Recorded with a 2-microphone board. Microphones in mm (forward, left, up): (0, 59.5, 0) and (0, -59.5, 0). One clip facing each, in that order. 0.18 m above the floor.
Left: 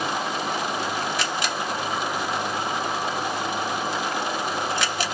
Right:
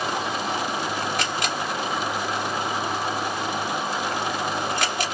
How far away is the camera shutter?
About 1.7 m.